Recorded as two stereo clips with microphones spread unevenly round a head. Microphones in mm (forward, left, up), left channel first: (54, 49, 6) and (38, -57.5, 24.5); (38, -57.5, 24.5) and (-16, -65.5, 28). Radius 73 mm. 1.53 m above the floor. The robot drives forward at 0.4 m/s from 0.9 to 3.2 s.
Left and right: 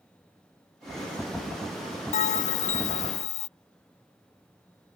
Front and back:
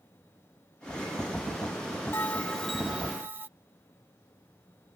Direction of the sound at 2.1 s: 75° left.